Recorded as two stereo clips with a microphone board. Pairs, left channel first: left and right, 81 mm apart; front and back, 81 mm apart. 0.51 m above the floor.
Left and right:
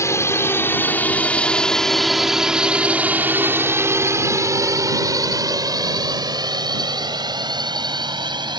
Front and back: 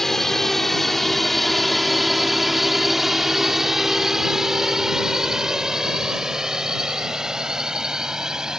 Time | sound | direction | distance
0.0 | a drone | 85° left | ?